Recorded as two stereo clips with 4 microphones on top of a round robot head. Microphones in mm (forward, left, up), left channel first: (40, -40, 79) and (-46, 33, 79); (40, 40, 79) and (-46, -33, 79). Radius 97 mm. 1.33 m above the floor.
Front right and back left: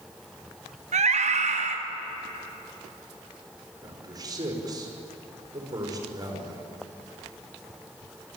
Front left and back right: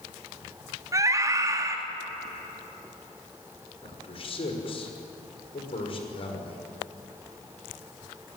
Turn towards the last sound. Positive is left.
turn(degrees=80)